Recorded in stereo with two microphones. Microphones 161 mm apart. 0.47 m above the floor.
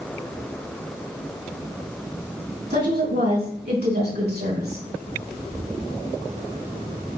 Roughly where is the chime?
I don't hear a chime.